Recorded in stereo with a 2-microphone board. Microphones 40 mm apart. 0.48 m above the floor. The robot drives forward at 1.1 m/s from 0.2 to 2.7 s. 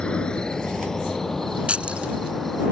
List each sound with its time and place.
0.0 s an insect: 25° left (ahead or behind); by 2.7 s 5° left (ahead or behind)
1.7 s keys jangling: 30° right (ahead or behind)